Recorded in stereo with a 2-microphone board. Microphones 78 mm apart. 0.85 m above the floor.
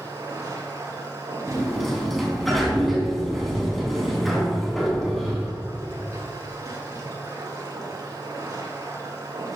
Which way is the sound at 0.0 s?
45° right (ahead or behind).